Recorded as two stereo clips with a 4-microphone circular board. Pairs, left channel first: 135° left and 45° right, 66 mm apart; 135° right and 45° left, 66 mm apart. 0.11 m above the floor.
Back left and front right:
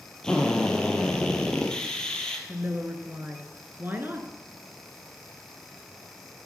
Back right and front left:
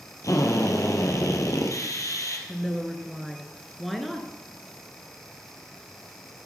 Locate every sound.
0.2 s a drill: 150° right, 2 m
2.5 s a woman speaking: 45° right, 1.8 m